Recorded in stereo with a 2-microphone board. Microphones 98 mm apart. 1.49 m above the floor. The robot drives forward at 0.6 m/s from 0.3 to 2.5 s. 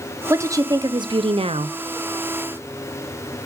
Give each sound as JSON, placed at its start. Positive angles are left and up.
{"t": 0.3, "sound": "a woman speaking", "side_deg": -30, "distance_m": 1.0}